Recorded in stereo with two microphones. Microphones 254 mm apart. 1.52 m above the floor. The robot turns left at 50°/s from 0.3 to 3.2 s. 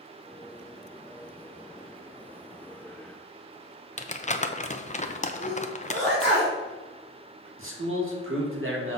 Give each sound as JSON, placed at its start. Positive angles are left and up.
{"t": 4.0, "sound": "crumpling", "side_deg": 30, "distance_m": 0.6}
{"t": 5.4, "sound": "a sneeze", "side_deg": -60, "distance_m": 3.0}
{"t": 7.6, "sound": "a man speaking", "side_deg": -55, "distance_m": 1.9}